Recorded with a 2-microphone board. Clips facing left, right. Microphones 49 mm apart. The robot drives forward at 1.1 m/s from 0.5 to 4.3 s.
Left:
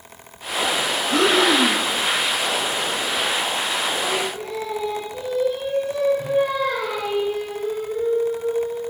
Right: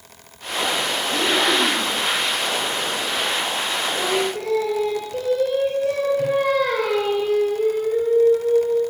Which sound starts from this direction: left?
Breathing, at 1.1 s.